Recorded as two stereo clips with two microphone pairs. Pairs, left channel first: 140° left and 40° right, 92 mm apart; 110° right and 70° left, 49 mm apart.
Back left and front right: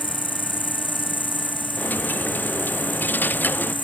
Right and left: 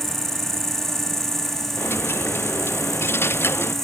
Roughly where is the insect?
Behind.